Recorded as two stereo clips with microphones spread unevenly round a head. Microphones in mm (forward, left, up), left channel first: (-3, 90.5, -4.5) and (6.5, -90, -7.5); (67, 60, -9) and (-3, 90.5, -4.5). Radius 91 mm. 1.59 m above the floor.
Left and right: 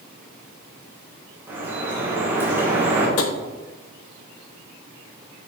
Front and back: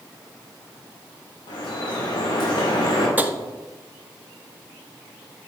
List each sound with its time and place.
1.5 s dripping: 10° right, 2.5 m
3.2 s tapping: 90° left, 0.9 m